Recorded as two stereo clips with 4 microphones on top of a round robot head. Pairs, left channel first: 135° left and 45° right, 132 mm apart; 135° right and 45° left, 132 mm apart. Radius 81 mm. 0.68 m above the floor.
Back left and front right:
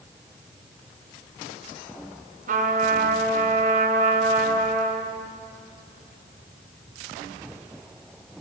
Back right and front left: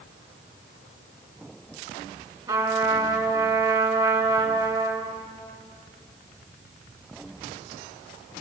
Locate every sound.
2.5 s a trumpet: 25° right, 1.9 m